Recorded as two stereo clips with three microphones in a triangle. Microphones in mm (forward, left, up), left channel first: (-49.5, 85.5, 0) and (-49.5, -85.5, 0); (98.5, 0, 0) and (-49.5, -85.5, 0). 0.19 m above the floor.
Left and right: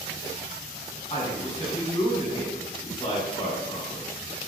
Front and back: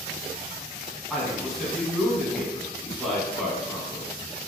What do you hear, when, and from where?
1.1 s a man speaking: 120° left, 1.2 m